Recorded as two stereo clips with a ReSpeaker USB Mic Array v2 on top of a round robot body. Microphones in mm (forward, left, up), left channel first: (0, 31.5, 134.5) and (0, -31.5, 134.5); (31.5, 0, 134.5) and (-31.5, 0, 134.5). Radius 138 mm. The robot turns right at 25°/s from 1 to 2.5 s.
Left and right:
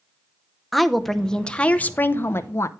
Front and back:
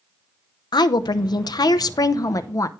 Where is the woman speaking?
Straight ahead, 0.7 m; by 2.7 s 40° left, 0.7 m.